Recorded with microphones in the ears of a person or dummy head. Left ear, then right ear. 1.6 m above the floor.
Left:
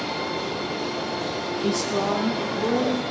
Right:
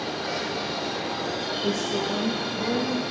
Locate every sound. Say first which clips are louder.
1.6 s a woman speaking: left 4 dB; 35° left (ahead or behind), 0.8 m; by 3.0 s 30° left (ahead or behind), 2.5 m